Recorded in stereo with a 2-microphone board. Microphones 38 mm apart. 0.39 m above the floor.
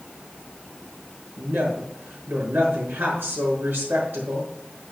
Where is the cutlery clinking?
I don't hear cutlery clinking.